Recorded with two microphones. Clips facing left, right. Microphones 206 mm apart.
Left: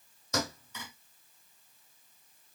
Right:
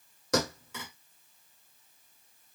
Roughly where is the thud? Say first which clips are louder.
Right 5 dB; right.